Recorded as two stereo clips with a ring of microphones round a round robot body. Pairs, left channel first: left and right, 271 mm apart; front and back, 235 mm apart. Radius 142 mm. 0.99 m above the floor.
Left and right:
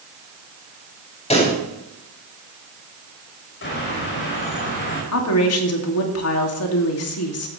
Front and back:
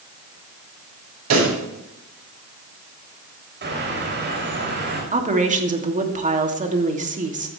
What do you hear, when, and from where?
1.3 s a pop: 160° left, 7 m
3.6 s a bird: 140° left, 6 m
5.1 s a woman speaking: 120° left, 2.5 m